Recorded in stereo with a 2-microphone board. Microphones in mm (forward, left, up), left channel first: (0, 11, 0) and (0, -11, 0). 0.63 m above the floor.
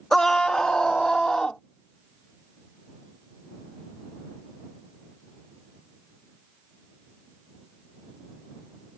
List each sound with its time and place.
0.1 s a scream: 25° left (ahead or behind); by 1.6 s 35° left (ahead or behind)